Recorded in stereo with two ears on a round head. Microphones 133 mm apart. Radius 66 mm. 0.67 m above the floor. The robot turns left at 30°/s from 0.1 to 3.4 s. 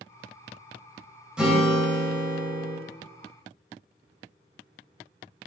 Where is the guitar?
175° right, 1.7 m; by 2.8 s 145° left, 1.7 m.